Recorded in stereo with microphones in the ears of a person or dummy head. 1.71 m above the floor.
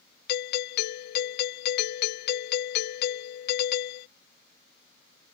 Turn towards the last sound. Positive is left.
turn(degrees=65)  # may be behind; listen again after turning